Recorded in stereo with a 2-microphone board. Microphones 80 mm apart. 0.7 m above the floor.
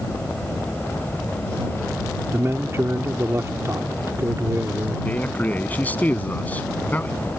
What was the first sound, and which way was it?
A man speaking, 35° right (ahead or behind).